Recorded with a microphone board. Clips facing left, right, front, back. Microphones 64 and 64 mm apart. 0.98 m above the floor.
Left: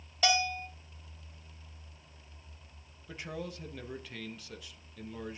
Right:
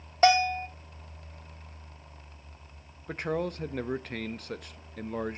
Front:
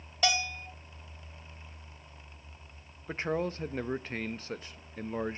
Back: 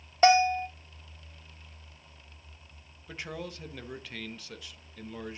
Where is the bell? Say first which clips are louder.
Right 8 dB, back 11 dB; 130° right, 0.7 m.